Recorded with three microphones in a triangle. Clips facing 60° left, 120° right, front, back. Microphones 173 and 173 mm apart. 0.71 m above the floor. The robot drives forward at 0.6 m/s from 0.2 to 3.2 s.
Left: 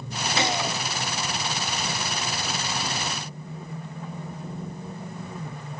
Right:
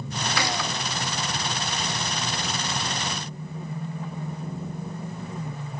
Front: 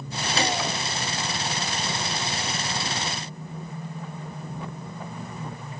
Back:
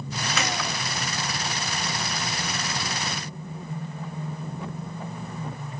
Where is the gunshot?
15° left, 1.0 m; by 0.8 s 30° left, 0.9 m.